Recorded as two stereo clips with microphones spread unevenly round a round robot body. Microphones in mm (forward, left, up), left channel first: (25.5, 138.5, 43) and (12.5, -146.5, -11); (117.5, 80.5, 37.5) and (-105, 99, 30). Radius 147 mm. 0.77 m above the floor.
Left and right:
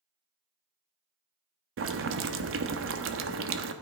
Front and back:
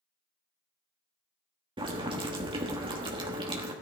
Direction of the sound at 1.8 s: 120° right.